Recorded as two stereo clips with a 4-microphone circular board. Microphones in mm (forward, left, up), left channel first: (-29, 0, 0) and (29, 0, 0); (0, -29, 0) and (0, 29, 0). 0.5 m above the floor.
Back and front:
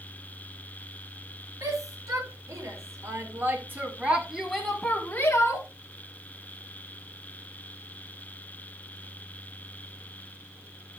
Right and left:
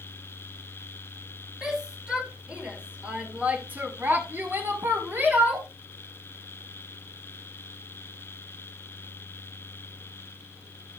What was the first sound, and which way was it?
A shout, 15° left.